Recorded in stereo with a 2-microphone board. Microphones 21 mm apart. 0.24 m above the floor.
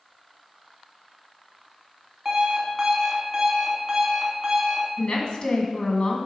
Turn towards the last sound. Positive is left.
turn(degrees=45)  # may be behind; listen again after turning